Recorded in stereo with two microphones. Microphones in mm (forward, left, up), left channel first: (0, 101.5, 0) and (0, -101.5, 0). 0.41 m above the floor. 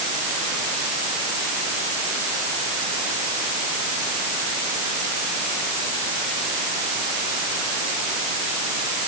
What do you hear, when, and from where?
Only background noise.